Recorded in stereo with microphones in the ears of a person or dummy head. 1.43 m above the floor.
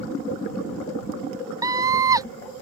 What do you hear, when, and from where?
1.6 s a scream: 20° right (ahead or behind)